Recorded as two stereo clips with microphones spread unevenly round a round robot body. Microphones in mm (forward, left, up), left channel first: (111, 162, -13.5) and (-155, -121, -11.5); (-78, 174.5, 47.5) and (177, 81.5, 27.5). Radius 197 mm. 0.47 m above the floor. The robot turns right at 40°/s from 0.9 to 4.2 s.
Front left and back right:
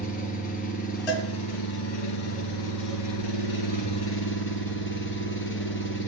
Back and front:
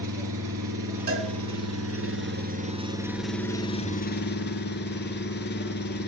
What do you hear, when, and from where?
0.0 s an engine running: 25° right, 1.9 m; by 6.1 s 110° left, 1.9 m
1.1 s a cowbell: 15° left, 3 m; by 1.3 s 25° left, 3 m